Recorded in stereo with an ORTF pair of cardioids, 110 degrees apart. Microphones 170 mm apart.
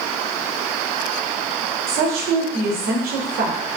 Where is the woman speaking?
65° right, 1.3 m.